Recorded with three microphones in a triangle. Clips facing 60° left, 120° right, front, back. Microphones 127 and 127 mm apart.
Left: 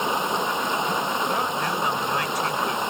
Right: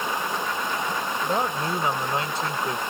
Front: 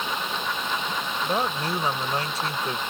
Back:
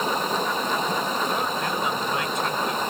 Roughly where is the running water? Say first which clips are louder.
Left 3 dB, back 5 dB; behind left.